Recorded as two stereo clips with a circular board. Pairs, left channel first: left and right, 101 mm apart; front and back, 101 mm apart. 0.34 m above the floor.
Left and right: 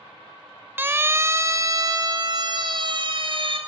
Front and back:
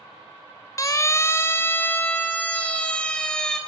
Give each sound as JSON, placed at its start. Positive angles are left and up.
{"t": 0.8, "sound": "a siren", "azimuth_deg": -30, "distance_m": 2.5}